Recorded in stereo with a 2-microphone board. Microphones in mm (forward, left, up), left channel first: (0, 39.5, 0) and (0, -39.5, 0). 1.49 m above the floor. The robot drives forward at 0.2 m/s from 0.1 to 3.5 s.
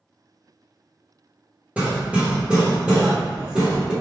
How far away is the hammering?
About 0.8 m.